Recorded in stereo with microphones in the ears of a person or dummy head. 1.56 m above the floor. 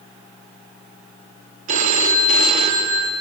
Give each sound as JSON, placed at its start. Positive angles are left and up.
{"t": 1.7, "sound": "a phone ringing", "side_deg": -45, "distance_m": 1.8}